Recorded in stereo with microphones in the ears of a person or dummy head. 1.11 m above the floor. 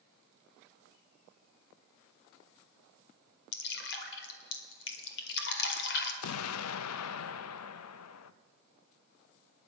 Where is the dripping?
55° left (ahead or behind), 2 m.